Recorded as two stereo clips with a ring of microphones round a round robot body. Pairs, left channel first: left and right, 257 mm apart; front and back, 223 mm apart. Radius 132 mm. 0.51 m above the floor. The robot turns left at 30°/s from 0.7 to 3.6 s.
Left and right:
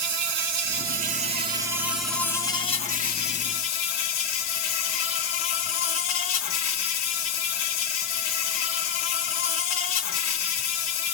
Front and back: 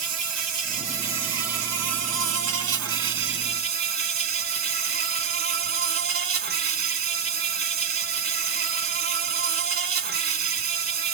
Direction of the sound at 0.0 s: 140° right.